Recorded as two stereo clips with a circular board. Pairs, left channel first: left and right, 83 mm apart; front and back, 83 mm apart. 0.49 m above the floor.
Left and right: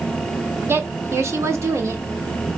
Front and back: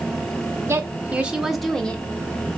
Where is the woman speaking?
135° right, 1.2 m; by 2.6 s 40° right, 1.2 m.